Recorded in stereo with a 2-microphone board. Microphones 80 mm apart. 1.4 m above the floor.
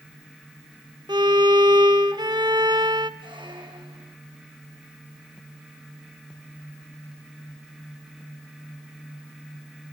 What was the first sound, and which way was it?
A violin, 60° right (ahead or behind).